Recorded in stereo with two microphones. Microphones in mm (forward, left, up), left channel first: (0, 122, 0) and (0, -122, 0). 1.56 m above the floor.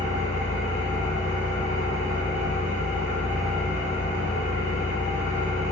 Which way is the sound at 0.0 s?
30° left (ahead or behind).